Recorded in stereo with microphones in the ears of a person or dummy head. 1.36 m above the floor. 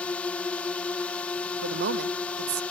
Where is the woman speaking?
65° right (ahead or behind).